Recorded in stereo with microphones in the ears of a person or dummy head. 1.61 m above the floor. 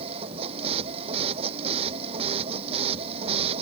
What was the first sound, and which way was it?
A machine running, 30° right (ahead or behind).